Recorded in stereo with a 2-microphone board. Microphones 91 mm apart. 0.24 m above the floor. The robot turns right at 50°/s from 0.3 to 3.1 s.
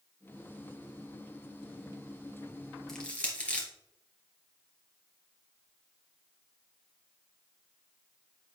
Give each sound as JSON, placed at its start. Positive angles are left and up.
{"t": 2.9, "sound": "crushing", "side_deg": 5, "distance_m": 2.5}